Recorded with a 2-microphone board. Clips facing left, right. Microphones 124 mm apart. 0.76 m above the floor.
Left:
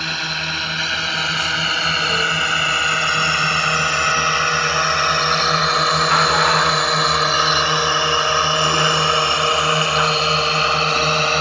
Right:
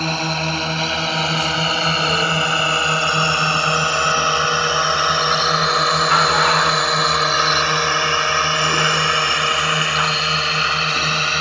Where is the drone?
35° right (ahead or behind); by 11.4 s 35° left (ahead or behind).